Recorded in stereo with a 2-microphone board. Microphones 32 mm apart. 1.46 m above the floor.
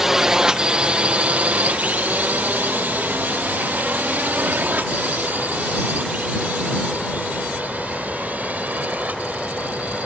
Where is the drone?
15° right (ahead or behind); by 10.1 s 55° right (ahead or behind).